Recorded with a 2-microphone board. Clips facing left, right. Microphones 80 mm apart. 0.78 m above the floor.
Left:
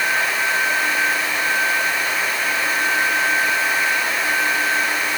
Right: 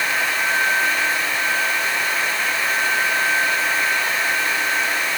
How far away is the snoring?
No snoring in this recording.